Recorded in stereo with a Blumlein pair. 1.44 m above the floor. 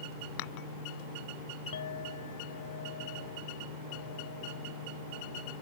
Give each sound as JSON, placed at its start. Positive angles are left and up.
{"t": 0.4, "sound": "dishes clattering", "azimuth_deg": 45}
{"t": 1.7, "sound": "a clink", "azimuth_deg": 70}